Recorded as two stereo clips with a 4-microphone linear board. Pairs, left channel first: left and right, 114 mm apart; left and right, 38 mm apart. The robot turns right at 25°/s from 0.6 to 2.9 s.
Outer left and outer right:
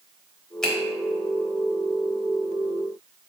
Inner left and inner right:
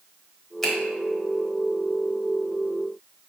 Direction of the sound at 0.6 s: 5° left (ahead or behind).